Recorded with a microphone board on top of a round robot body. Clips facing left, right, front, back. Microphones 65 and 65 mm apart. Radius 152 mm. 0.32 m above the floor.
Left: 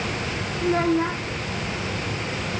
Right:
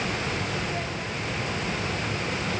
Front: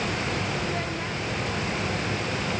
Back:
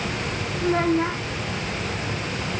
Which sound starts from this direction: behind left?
A child speaking, at 0.6 s.